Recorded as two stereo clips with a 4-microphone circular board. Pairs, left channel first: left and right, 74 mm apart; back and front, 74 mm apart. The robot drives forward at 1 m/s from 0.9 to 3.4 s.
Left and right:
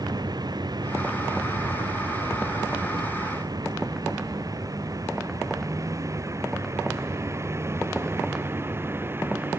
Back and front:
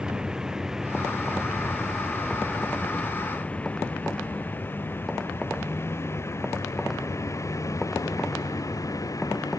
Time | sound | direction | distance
0.0 | a vehicle | 80° right | ?